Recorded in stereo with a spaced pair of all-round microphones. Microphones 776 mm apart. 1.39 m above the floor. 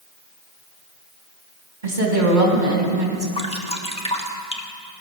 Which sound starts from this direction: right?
A woman speaking, at 1.8 s.